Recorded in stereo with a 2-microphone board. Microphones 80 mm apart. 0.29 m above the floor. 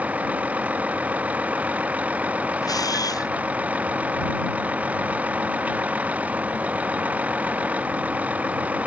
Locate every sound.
0.0 s a vehicle: 20° right (ahead or behind)
2.6 s a camera shutter: 50° left (ahead or behind)